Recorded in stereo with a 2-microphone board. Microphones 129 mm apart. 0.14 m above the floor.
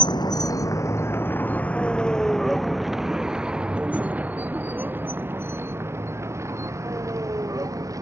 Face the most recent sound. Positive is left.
turn(degrees=-25)  # may be behind; listen again after turning